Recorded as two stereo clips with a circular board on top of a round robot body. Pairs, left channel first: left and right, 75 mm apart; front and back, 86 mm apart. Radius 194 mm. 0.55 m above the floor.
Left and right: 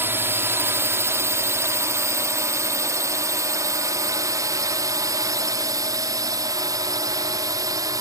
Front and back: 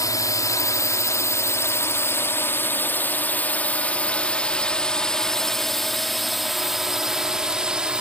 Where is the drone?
40° right; by 8.0 s 105° right.